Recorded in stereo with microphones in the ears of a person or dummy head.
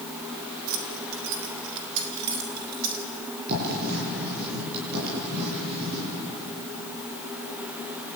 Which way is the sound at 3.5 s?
55° right (ahead or behind).